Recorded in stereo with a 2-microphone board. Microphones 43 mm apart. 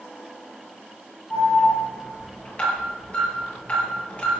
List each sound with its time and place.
1.3 s an alarm: 30° left (ahead or behind), 8 m